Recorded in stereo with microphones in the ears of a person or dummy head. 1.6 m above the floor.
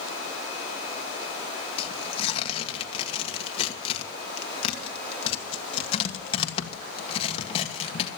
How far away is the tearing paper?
About 1.5 m.